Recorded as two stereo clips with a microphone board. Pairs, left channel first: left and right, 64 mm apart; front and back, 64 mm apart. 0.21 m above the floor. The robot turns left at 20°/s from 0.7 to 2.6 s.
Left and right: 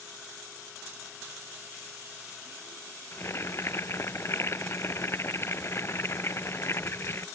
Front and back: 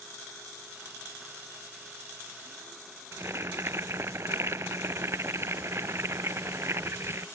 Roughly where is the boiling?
Behind left.